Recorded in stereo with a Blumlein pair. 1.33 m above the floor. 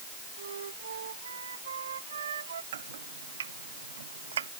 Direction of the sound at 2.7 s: 65° right.